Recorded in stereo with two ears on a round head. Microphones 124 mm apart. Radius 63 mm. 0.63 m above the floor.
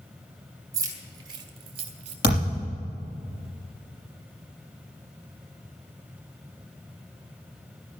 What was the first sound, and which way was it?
Keys jangling, 25° right (ahead or behind).